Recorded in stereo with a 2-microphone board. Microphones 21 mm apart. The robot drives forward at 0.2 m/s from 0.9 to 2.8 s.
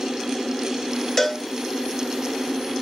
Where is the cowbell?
15° left (ahead or behind), 0.8 m.